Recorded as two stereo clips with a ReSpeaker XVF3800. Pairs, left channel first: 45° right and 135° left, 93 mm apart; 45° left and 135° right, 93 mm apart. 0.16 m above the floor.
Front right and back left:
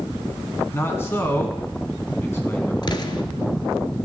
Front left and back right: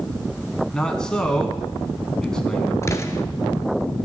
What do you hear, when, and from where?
0.7 s a man speaking: 30° right, 1.4 m
2.8 s an explosion: 10° right, 0.8 m